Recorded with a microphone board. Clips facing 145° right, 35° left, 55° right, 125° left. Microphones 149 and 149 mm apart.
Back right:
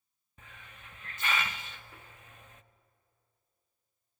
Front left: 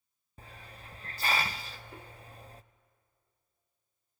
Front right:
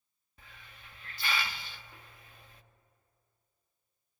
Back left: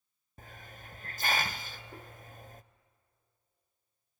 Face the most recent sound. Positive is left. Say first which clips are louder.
# front left 4 dB, back left 7 dB
turn(degrees=85)